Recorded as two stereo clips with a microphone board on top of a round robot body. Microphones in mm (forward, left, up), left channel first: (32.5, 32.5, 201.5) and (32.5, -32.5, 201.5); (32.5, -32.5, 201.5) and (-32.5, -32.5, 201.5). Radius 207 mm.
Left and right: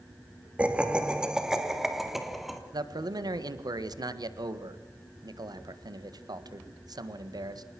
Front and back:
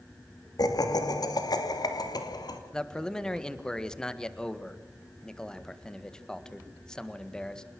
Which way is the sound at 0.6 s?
20° right.